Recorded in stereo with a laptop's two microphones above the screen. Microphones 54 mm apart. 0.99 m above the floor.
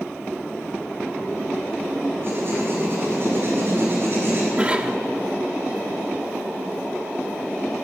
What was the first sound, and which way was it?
Writing, 50° right (ahead or behind).